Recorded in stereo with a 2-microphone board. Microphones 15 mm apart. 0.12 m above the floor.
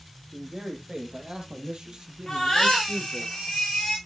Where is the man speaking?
75° right (ahead or behind), 4 m; by 3.3 s 45° right (ahead or behind), 2.5 m.